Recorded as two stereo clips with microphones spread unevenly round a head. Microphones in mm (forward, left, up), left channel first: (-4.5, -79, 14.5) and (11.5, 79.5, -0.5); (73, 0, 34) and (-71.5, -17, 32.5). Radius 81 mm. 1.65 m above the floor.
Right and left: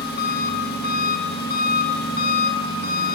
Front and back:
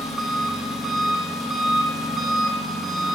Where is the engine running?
85° right, 1.5 m.